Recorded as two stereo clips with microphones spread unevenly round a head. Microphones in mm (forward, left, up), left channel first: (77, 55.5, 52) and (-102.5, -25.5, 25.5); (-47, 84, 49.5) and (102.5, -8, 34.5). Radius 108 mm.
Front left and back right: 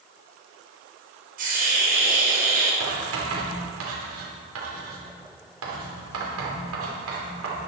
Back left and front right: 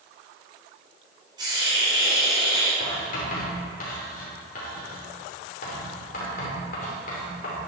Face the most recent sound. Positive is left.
turn(degrees=-160)